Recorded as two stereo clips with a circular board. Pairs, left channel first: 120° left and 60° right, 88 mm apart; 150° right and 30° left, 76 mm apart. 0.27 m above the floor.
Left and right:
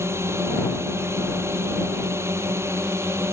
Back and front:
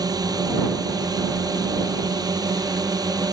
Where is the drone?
Straight ahead.